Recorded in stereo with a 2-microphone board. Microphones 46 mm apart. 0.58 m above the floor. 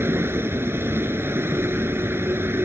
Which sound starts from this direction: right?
A vehicle, at 0.0 s.